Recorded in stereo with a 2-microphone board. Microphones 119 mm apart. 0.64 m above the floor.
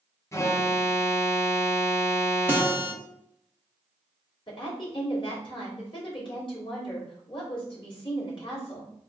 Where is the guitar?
15° right (ahead or behind), 0.7 m.